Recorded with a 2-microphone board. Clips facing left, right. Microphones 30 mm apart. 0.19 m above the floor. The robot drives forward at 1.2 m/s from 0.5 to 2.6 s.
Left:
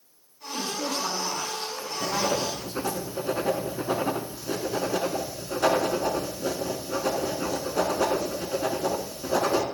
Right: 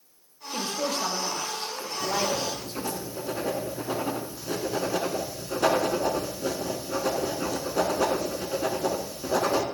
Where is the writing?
30° left (ahead or behind), 1.0 m; by 9.6 s 20° left (ahead or behind), 1.5 m.